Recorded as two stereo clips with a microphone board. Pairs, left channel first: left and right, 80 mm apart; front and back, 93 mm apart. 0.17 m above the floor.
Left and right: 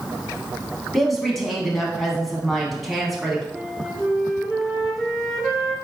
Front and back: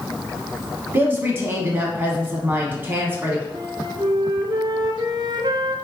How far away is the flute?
About 0.9 m.